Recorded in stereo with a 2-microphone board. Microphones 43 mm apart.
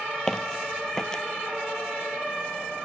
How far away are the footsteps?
About 1.0 m.